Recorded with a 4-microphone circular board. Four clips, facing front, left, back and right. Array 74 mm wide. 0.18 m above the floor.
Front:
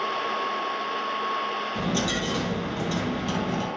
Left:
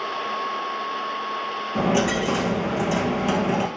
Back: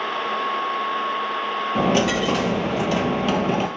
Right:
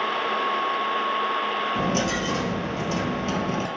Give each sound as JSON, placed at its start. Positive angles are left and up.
{"t": 1.8, "sound": "a dropped coin", "azimuth_deg": 160, "distance_m": 1.1}